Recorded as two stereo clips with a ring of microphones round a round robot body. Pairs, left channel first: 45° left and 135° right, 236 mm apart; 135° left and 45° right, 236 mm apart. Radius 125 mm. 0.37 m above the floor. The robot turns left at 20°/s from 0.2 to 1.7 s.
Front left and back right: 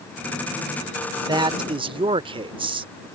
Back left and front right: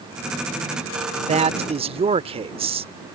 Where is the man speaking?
75° right; by 2.9 s 85° right.